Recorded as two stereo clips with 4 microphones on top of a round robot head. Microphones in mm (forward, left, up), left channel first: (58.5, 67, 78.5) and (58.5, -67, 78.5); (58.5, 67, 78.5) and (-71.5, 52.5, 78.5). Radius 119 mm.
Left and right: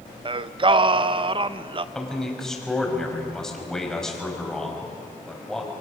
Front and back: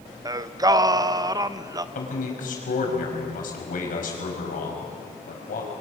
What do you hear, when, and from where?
0.2 s singing: 125° right, 0.6 m
1.9 s a man speaking: 5° left, 5.5 m